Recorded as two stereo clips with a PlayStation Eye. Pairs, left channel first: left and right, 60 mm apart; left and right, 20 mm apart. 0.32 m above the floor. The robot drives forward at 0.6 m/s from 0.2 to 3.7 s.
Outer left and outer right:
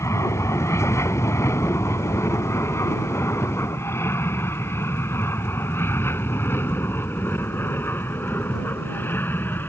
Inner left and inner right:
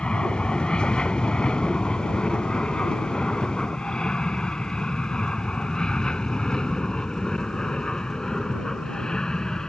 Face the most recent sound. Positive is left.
turn(degrees=35)  # may be behind; listen again after turning